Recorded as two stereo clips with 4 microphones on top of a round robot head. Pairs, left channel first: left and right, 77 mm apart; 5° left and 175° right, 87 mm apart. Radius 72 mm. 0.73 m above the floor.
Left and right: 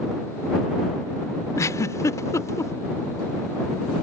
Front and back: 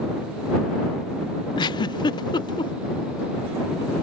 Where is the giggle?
40° left.